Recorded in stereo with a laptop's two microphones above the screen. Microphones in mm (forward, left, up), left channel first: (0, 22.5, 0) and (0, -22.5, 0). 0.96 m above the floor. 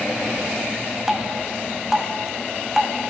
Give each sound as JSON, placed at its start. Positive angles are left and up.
{"t": 1.1, "sound": "dripping", "side_deg": -10, "distance_m": 0.7}